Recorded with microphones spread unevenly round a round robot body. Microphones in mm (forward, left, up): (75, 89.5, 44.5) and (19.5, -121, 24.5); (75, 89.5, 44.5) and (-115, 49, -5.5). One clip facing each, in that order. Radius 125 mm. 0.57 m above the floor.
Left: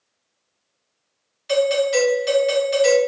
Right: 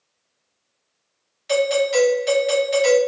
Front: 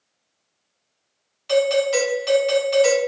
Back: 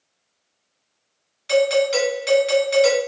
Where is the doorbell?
165° left, 1.3 m.